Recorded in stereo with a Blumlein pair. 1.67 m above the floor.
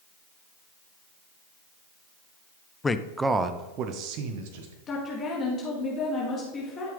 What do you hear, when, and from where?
2.8 s a man speaking: 15° left, 0.6 m; by 4.8 s 55° right, 1.3 m
4.9 s a woman speaking: 25° left, 2.0 m